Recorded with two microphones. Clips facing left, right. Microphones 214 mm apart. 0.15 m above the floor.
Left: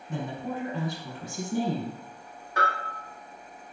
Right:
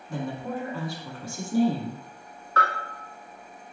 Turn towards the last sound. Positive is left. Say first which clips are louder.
# right 1 dB
turn(degrees=15)  # may be behind; listen again after turning